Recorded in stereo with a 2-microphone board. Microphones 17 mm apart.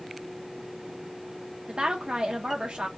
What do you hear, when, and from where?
1.7 s a woman speaking: 70° right (ahead or behind), 1.2 m